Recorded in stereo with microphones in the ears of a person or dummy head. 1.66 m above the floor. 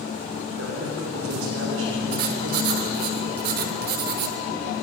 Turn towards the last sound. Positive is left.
turn(degrees=-50)  # may be behind; listen again after turning